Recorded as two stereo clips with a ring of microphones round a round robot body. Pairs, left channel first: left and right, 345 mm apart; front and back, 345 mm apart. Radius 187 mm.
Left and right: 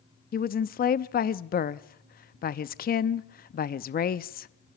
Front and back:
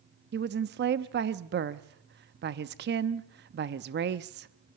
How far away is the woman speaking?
About 0.6 m.